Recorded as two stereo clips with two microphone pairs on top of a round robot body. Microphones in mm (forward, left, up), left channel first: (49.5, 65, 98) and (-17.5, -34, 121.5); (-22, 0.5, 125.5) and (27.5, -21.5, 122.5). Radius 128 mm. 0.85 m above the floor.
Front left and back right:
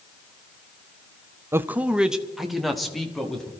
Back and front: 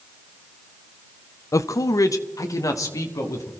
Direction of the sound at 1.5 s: 160° left.